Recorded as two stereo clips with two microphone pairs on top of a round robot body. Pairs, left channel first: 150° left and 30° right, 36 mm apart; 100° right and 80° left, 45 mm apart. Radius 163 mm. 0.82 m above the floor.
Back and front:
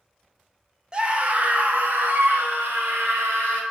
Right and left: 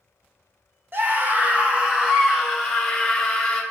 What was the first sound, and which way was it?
A scream, 35° left.